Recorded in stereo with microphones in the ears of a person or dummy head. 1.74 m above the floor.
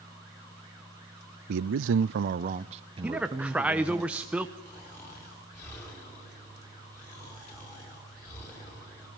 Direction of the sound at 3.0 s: 5° right (ahead or behind).